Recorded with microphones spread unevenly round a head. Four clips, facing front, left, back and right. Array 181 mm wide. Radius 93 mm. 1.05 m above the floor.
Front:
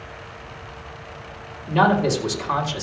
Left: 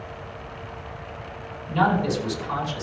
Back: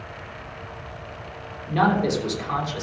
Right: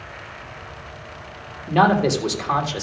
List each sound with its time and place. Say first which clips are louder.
1.7 s a man speaking: right 5 dB, front 3 dB; 80° right, 3.5 m